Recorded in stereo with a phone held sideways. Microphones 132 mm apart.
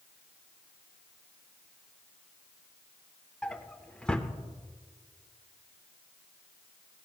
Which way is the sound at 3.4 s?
5° left (ahead or behind).